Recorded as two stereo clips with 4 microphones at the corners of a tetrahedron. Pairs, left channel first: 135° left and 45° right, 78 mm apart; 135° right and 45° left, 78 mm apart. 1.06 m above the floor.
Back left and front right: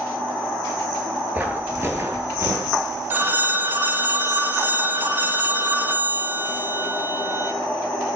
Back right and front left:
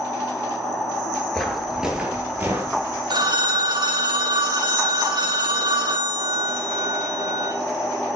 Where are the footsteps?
55° right, 1.1 m; by 3.0 s straight ahead, 1.7 m.